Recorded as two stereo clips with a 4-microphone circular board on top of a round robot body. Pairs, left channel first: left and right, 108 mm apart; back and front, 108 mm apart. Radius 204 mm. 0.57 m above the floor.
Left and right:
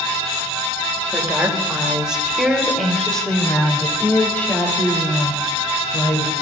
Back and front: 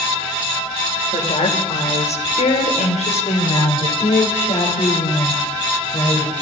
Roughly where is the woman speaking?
Behind.